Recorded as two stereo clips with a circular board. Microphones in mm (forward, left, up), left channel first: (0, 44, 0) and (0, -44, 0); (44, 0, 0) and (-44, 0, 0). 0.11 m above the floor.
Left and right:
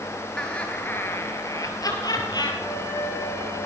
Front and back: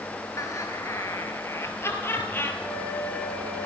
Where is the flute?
60° right, 8 m.